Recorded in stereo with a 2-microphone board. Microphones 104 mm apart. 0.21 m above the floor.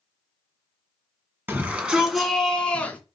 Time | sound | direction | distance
1.5 | a shout | 20° right (ahead or behind) | 2 m